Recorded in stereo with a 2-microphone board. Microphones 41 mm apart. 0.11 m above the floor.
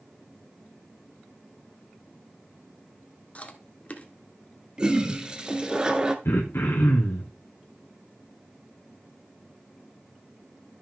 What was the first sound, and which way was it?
Chewing, 35° left (ahead or behind).